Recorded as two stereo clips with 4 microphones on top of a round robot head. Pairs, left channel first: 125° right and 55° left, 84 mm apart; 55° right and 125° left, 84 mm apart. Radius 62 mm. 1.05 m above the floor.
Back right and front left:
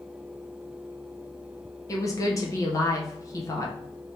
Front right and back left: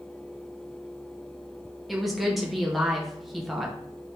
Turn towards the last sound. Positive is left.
turn(degrees=-145)